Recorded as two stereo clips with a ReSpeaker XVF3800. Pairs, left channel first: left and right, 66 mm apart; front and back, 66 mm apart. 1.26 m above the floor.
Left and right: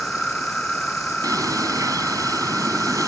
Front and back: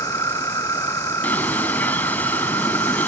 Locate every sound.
0.0 s an insect: 5° left
1.2 s a bird: 65° right